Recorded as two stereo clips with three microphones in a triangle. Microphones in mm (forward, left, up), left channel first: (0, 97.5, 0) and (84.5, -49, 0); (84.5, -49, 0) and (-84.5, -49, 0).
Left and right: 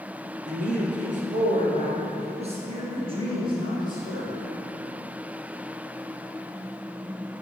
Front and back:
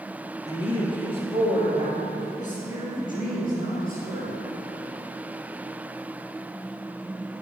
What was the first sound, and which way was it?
A man speaking, 60° right.